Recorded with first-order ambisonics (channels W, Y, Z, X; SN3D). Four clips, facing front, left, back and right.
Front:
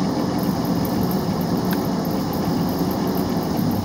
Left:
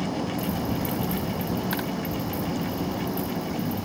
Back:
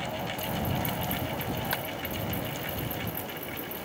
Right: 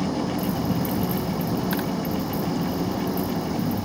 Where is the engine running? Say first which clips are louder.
Right 3 dB, front 12 dB; 10° right.